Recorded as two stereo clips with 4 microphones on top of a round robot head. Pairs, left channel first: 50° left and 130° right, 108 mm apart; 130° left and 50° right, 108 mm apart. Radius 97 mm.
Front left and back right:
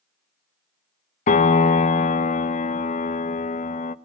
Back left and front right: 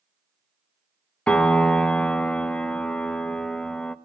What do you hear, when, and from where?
1.3 s a piano: 50° left, 1.0 m